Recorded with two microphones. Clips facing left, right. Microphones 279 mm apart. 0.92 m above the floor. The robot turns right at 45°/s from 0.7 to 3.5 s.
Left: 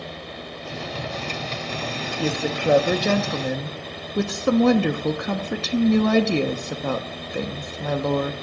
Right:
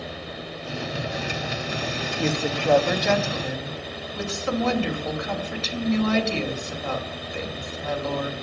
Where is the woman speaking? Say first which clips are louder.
Left 1 dB; straight ahead, 1.0 m; by 8.3 s 60° left, 1.0 m.